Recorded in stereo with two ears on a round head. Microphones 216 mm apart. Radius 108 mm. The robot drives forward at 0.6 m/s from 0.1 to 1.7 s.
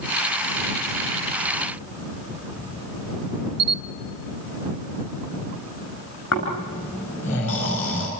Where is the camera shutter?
40° right (ahead or behind), 0.8 m.